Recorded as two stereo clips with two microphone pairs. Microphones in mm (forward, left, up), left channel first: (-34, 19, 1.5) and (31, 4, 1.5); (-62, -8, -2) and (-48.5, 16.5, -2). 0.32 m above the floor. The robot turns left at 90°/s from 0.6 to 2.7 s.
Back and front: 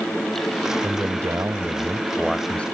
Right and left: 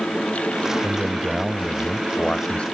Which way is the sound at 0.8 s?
30° left.